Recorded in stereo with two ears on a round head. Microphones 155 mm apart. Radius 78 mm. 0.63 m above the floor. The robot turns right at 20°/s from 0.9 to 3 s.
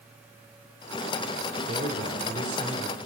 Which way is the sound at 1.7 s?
40° right (ahead or behind).